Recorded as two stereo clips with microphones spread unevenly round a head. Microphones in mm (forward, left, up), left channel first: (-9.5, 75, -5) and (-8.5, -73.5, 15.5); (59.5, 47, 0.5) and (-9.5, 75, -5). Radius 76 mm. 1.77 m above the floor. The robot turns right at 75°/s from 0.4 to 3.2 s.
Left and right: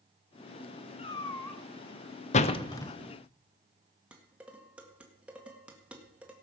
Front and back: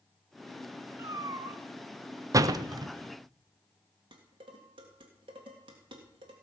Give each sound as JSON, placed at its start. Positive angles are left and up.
{"t": 1.0, "sound": "a cat meowing", "azimuth_deg": 130, "distance_m": 1.9}
{"t": 2.3, "sound": "a door slam", "azimuth_deg": 130, "distance_m": 0.7}
{"t": 4.1, "sound": "dishes clattering", "azimuth_deg": -170, "distance_m": 1.9}